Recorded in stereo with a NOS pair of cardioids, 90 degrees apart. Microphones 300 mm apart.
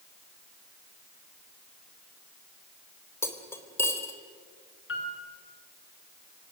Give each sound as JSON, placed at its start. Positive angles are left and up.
{"t": 3.2, "sound": "cutlery clinking", "azimuth_deg": 10, "distance_m": 3.0}
{"t": 4.9, "sound": "a piano", "azimuth_deg": 45, "distance_m": 5.5}